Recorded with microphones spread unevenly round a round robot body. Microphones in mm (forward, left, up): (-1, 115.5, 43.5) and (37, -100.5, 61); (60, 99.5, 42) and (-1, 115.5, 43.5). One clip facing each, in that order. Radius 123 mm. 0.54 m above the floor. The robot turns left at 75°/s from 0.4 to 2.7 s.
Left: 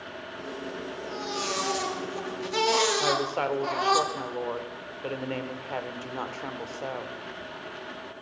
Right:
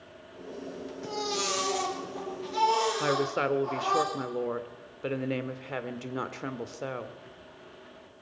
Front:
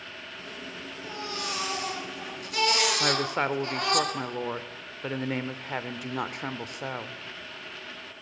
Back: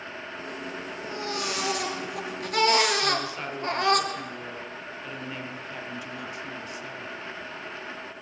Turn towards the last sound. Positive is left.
turn(degrees=-10)